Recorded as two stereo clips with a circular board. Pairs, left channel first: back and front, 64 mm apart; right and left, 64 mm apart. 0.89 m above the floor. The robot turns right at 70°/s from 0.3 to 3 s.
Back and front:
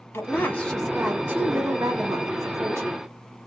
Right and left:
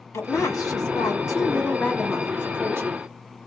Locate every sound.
0.1 s a woman speaking: 130° right, 1.6 m; by 3.0 s 60° left, 1.6 m